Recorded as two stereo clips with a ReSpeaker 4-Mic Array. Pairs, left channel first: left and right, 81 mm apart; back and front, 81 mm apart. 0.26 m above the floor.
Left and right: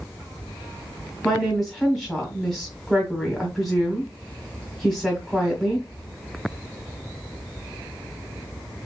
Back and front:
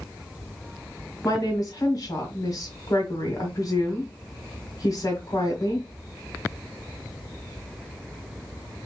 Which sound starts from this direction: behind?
A woman speaking, at 1.2 s.